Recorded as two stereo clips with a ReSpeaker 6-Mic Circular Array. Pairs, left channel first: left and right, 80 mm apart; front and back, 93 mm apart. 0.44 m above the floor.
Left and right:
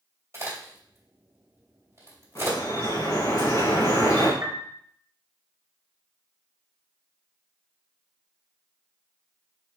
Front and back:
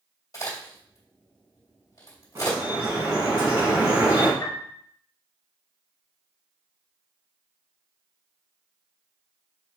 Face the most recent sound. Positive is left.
turn(degrees=-50)